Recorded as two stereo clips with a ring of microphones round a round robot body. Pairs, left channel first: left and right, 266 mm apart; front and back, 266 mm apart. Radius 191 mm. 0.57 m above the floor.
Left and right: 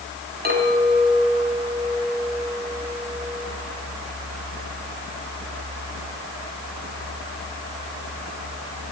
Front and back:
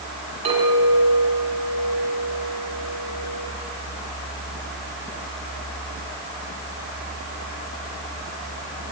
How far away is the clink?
About 4 m.